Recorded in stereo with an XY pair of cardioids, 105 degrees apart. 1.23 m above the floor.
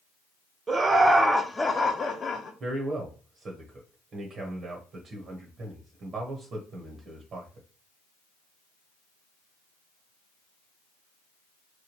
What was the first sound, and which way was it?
Laughter, 40° right.